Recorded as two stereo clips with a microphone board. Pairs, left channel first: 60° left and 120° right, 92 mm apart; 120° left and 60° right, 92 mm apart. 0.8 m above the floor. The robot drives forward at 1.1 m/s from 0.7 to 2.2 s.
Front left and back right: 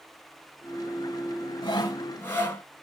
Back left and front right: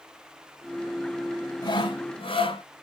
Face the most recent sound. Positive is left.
turn(degrees=125)